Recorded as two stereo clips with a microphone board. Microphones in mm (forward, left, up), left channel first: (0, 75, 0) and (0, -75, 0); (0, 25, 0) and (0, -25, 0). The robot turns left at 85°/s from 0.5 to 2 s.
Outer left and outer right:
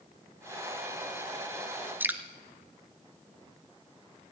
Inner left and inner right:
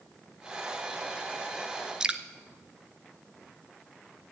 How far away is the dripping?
About 0.6 m.